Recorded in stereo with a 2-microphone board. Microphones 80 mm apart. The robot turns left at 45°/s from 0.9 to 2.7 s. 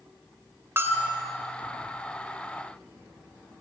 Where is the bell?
30° right (ahead or behind), 2.5 m; by 1.2 s 15° right (ahead or behind), 2.5 m.